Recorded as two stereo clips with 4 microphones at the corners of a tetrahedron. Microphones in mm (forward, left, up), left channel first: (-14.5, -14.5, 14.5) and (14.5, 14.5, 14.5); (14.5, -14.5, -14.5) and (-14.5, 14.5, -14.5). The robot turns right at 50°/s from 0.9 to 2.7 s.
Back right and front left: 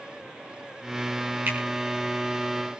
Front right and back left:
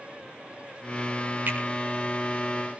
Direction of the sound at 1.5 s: 85° left.